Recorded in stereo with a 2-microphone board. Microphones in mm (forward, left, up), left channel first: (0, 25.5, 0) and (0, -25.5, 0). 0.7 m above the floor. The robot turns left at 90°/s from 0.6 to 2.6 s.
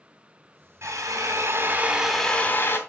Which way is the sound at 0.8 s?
60° right.